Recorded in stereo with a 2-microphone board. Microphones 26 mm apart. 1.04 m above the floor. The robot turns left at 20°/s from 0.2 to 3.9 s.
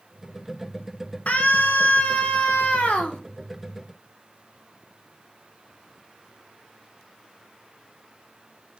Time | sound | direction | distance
1.3 | a scream | 115° left | 2.5 m